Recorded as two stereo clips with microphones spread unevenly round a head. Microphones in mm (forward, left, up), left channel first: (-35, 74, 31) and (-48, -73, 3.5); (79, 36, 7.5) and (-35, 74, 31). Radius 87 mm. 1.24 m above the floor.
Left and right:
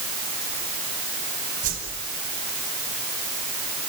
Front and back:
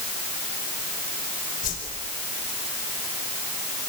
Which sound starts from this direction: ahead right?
A whoosh, at 1.6 s.